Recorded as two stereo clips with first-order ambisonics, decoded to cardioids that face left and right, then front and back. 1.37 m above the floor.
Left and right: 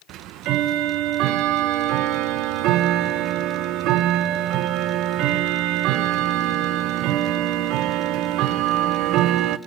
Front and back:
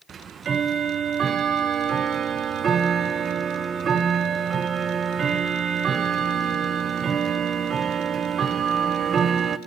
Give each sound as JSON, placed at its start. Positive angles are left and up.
{"t": 0.1, "sound": "ticking", "azimuth_deg": -120, "distance_m": 0.6}